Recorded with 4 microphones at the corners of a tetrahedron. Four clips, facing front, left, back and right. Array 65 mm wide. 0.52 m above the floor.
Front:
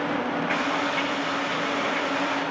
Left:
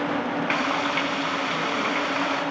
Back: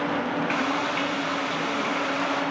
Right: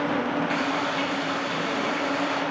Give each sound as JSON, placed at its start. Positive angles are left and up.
{"t": 0.5, "sound": "frying", "azimuth_deg": 90, "distance_m": 4.0}